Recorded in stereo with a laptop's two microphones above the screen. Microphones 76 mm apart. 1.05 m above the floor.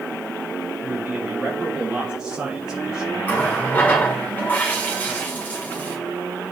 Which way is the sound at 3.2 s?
25° left (ahead or behind).